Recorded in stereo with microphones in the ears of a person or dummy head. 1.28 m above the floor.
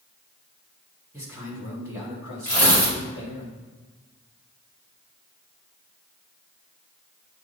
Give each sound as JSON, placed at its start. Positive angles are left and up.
{"t": 1.1, "sound": "a man speaking", "side_deg": -15, "distance_m": 2.0}
{"t": 2.5, "sound": "tearing paper", "side_deg": 15, "distance_m": 2.5}